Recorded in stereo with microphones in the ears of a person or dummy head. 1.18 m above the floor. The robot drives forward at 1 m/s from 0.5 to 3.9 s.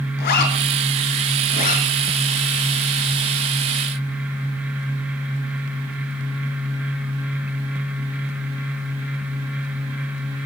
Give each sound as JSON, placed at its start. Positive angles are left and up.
{"t": 0.2, "sound": "a zipper", "side_deg": 45, "distance_m": 4.5}